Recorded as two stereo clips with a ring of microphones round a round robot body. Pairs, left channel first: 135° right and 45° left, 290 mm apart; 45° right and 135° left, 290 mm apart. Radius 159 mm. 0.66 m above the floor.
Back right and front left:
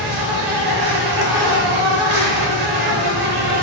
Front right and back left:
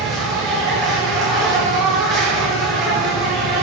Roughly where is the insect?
Ahead left.